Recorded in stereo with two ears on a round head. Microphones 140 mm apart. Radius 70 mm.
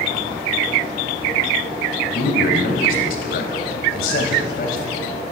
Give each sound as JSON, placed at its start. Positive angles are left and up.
{"t": 2.1, "sound": "a man speaking", "side_deg": 60, "distance_m": 3.0}